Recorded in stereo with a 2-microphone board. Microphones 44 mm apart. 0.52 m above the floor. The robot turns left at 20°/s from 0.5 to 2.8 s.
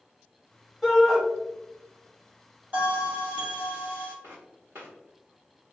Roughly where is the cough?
I don't hear a cough.